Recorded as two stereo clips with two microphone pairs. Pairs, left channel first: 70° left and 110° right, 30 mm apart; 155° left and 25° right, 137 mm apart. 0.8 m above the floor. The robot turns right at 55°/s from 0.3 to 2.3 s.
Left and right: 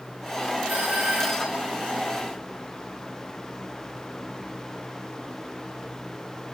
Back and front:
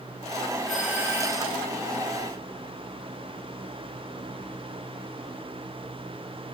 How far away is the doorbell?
About 3 m.